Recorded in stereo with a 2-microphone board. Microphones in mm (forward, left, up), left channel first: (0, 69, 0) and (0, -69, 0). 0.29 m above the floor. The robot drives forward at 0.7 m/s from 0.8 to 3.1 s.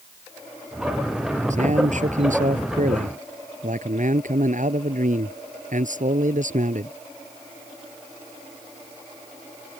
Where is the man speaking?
65° right (ahead or behind); by 6.9 s 70° right (ahead or behind).